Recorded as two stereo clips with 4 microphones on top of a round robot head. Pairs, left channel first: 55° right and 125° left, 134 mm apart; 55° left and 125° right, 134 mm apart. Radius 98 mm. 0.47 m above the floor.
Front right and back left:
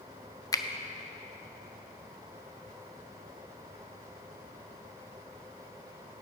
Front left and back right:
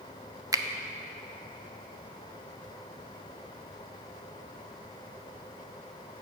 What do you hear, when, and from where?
0.5 s a finger snap: 90° right, 0.7 m